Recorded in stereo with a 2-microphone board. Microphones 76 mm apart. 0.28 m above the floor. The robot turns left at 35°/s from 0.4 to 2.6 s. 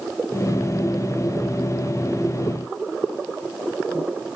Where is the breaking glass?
I don't hear breaking glass.